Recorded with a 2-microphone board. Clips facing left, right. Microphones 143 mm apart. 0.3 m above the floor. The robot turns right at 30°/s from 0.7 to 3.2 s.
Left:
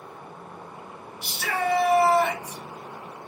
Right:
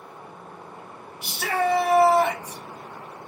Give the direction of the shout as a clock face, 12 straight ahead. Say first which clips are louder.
Right 3 dB; 3 o'clock.